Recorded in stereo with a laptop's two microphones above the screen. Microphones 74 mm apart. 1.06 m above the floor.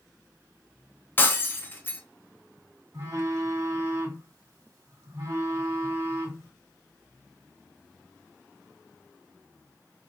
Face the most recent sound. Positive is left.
turn(degrees=-40)  # may be behind; listen again after turning